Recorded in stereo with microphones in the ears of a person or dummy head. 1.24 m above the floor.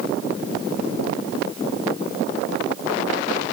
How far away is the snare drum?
I don't hear a snare drum.